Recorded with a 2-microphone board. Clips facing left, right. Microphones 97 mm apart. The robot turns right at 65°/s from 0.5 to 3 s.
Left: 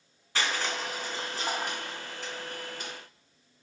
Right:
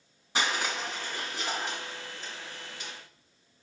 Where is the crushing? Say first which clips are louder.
Right 1 dB; 15° right, 3.5 m; by 2.9 s 140° left, 3.5 m.